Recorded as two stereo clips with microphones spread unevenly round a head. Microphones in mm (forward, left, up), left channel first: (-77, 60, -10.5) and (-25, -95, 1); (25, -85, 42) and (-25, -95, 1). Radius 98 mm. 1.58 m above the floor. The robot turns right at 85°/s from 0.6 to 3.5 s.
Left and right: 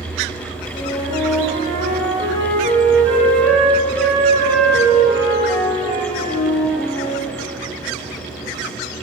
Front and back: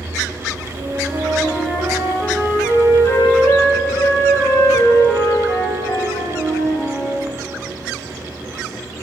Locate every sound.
0.7 s a flute: 165° left, 5 m; by 7.2 s 40° left, 5 m